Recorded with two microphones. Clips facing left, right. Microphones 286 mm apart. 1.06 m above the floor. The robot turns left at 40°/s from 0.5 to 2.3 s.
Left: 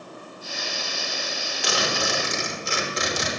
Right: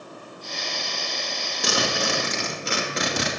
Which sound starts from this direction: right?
A zipper, at 1.6 s.